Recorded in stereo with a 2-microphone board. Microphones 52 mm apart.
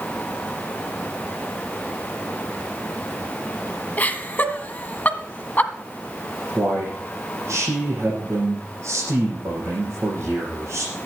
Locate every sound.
4.0 s laughter: 30° left (ahead or behind), 1.4 m
6.5 s a man speaking: 60° right (ahead or behind), 6 m